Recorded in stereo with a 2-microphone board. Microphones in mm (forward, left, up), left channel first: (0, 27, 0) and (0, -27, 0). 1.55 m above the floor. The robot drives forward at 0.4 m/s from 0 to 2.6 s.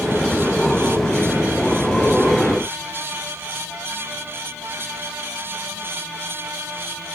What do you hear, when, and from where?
Only background noise.